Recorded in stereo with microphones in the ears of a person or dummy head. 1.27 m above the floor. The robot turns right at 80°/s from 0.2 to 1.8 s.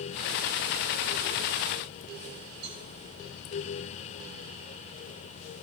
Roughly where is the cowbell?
Right.